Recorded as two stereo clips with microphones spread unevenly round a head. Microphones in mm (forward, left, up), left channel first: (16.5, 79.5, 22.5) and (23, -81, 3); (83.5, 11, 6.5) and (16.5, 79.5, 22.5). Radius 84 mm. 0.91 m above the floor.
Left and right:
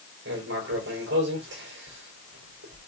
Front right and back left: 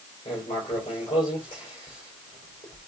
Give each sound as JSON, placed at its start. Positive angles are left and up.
{"t": 0.2, "sound": "writing", "azimuth_deg": -105, "distance_m": 3.5}